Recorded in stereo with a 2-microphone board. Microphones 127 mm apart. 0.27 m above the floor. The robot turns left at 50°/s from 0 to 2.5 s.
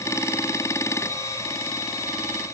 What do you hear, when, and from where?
Only background noise.